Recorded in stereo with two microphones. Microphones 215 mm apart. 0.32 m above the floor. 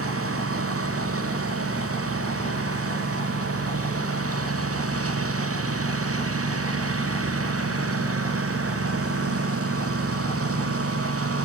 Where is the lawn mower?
80° right; by 11.4 s 85° right.